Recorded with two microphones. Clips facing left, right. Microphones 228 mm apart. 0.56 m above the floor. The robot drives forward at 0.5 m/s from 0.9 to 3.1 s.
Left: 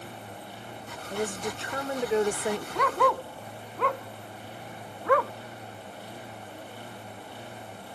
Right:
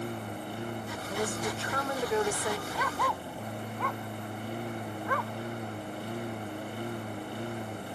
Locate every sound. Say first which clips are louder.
0.0 s a lawn mower: right 6 dB; 55° right (ahead or behind)
1.1 s a woman speaking: left 2 dB; 15° left (ahead or behind); by 2.6 s 30° left (ahead or behind)
2.8 s a dog barking: left 8 dB; 60° left (ahead or behind); by 5.3 s 70° left (ahead or behind)